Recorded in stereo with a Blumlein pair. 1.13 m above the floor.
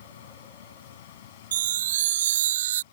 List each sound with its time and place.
0.0 s a fan: 60° left
1.5 s a chime: 60° right